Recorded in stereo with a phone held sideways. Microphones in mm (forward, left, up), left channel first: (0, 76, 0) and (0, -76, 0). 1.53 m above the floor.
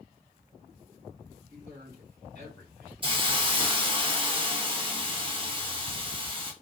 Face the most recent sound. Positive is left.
turn(degrees=-35)  # may be behind; listen again after turning